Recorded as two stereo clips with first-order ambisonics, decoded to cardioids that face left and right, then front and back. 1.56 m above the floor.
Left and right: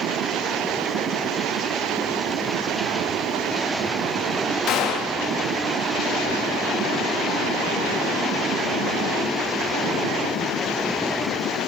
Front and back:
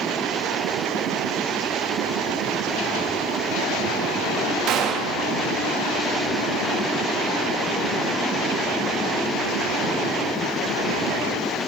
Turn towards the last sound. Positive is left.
turn(degrees=135)